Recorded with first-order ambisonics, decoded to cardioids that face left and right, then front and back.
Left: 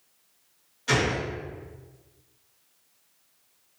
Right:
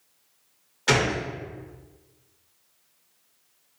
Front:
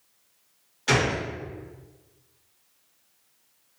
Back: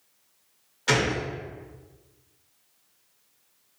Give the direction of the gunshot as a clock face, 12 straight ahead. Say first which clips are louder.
Right 2 dB, even; 3 o'clock.